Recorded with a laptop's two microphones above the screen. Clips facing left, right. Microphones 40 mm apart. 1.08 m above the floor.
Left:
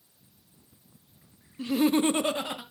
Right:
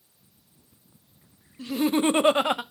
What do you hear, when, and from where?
1.6 s laughter: 20° left (ahead or behind), 0.8 m; by 2.6 s 65° right (ahead or behind), 0.8 m